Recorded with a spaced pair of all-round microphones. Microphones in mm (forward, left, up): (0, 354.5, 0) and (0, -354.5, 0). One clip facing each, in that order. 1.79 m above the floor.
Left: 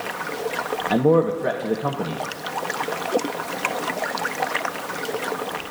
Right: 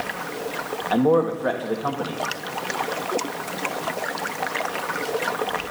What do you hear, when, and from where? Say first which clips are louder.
0.9 s a man speaking: left 1 dB; 55° left (ahead or behind), 1.3 m